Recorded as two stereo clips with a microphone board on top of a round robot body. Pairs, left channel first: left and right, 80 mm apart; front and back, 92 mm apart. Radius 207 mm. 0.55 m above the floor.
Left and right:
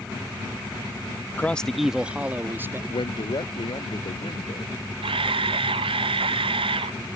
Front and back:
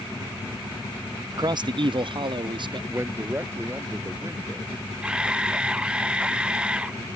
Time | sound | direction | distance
1.3 | a man speaking | 150° left | ?
2.9 | a man speaking | 115° left | ?
5.0 | a camera shutter | 100° right | ?